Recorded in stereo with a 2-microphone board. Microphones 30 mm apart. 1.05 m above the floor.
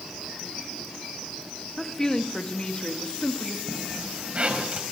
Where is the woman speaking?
20° left (ahead or behind), 1.8 m; by 3.6 s 50° left (ahead or behind), 2 m.